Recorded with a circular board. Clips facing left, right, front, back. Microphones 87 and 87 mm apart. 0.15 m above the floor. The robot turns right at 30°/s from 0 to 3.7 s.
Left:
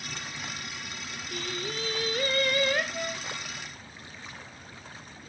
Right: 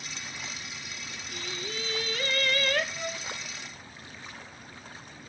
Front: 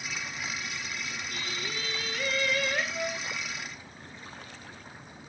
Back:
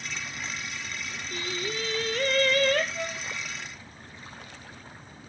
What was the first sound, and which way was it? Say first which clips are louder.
Singing: left 3 dB, back 8 dB; 120° left.